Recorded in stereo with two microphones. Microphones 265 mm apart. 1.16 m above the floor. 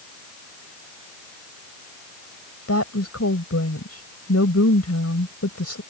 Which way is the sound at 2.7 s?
65° left (ahead or behind).